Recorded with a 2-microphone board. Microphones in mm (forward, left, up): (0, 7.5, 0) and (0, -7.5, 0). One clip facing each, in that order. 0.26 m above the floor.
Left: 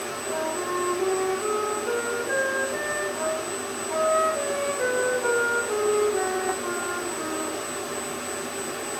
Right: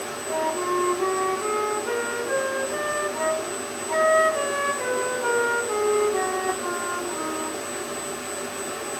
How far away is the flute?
About 1.9 m.